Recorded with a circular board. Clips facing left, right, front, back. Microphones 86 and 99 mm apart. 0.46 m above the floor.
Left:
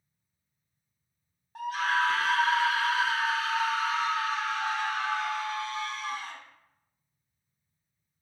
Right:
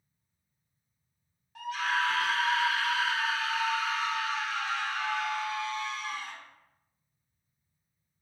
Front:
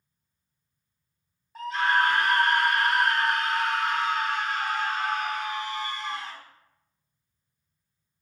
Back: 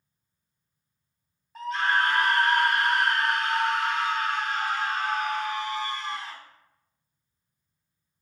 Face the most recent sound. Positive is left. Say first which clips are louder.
# left 3 dB, front 1 dB
turn(degrees=90)